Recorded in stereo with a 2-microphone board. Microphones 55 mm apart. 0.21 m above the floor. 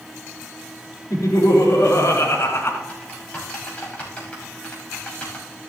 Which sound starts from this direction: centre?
Typing on a keyboard, at 2.9 s.